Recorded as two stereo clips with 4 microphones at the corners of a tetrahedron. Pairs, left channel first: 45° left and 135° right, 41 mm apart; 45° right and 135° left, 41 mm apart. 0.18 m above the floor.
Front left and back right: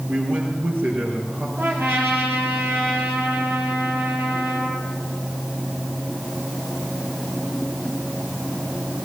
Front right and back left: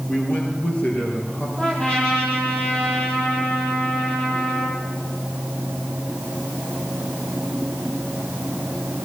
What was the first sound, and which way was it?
A man speaking, 95° right.